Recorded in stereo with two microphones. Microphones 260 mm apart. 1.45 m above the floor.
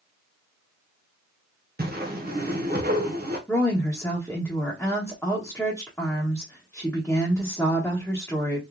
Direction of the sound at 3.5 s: 5° left (ahead or behind).